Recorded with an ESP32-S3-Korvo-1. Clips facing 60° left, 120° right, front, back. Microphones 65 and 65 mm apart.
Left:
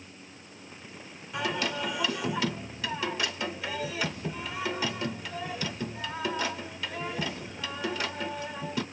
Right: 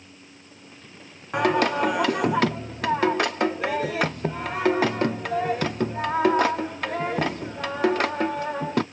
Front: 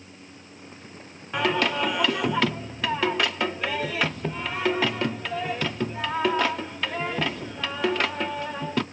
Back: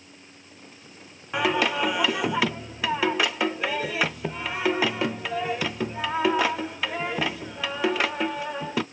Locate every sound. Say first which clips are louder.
1.3 s singing: right 10 dB, even; 100° right, 0.5 m